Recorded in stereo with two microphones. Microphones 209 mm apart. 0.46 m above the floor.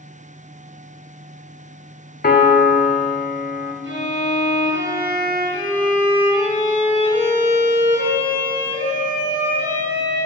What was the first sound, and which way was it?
A piano, 50° left (ahead or behind).